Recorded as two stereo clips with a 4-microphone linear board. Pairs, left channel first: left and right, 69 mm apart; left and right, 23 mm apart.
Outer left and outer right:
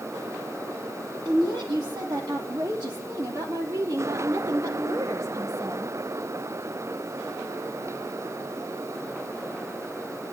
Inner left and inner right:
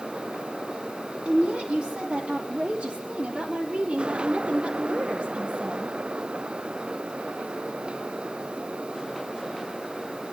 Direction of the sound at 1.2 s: 75° right (ahead or behind).